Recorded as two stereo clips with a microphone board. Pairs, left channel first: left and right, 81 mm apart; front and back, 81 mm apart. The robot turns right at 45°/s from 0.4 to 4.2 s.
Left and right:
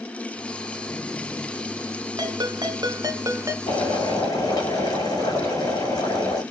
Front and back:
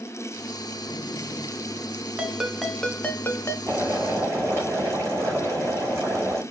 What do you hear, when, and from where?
2.2 s a ringtone: 110° right, 1.2 m; by 3.6 s 45° right, 1.2 m
3.7 s boiling: 100° left, 7 m; by 6.4 s 125° left, 7 m